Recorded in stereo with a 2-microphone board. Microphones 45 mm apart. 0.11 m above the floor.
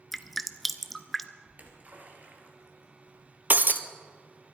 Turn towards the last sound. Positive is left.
turn(degrees=-45)  # may be behind; listen again after turning